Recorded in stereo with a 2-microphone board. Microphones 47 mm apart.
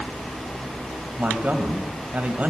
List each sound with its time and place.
1.2 s a man speaking: 35° right (ahead or behind), 1.8 m